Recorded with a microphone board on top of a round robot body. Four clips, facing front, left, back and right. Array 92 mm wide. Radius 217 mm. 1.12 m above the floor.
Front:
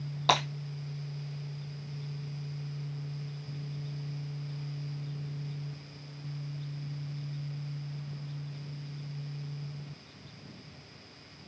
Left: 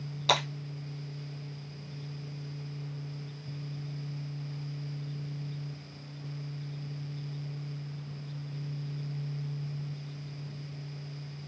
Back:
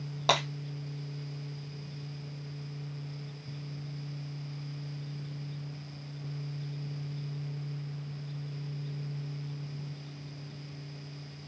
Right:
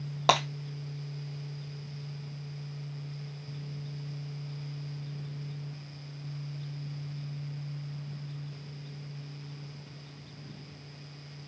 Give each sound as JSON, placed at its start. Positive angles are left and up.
{"t": 0.3, "sound": "breaking glass", "azimuth_deg": -100, "distance_m": 2.0}